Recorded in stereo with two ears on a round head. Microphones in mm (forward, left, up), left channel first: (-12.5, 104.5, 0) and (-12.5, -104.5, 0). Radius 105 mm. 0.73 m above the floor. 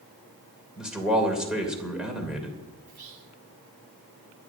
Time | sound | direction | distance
0.8 | a man speaking | 5° right (ahead or behind) | 2.5 m
2.9 | whispering | 50° right (ahead or behind) | 3 m